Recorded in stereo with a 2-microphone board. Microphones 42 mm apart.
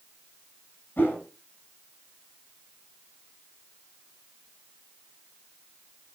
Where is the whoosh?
50° left (ahead or behind), 5 m.